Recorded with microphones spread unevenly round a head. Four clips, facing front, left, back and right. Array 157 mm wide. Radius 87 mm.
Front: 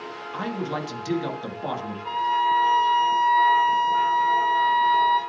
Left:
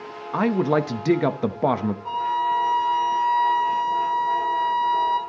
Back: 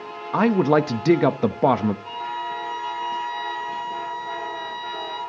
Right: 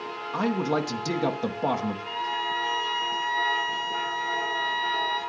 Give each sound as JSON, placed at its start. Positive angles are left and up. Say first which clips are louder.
{"t": 0.3, "sound": "a man speaking", "louder": "left 5 dB, back 12 dB", "azimuth_deg": 170, "distance_m": 1.0}
{"t": 2.0, "sound": "a violin", "louder": "left 7 dB, front 7 dB", "azimuth_deg": 70, "distance_m": 1.7}